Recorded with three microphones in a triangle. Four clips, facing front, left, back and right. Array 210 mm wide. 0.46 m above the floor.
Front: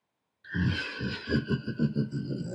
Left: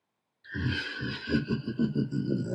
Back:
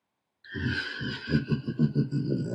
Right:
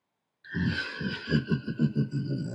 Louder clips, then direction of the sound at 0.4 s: Right 2 dB, even; 25° right.